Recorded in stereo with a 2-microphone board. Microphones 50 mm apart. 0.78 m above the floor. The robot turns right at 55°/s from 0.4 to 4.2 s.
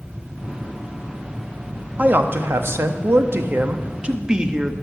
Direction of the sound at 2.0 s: 140° right.